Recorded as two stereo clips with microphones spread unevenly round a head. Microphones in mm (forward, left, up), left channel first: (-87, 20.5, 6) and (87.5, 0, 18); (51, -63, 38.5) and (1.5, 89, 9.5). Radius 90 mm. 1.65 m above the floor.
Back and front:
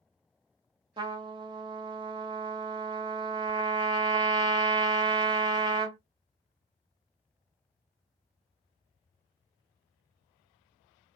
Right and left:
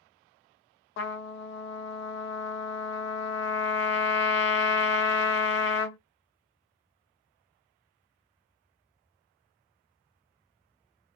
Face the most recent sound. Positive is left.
turn(degrees=-70)